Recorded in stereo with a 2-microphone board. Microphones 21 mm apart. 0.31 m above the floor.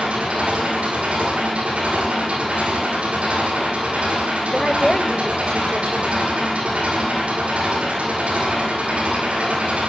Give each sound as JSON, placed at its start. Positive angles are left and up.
{"t": 0.0, "sound": "an engine running", "side_deg": -75, "distance_m": 9.5}
{"t": 4.5, "sound": "a woman speaking", "side_deg": 30, "distance_m": 1.0}